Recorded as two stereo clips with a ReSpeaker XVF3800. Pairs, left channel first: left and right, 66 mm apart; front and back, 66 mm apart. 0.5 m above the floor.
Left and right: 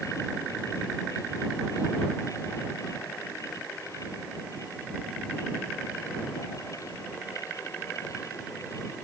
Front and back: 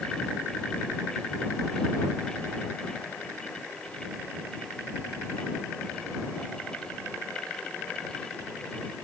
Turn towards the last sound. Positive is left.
No sound to turn to.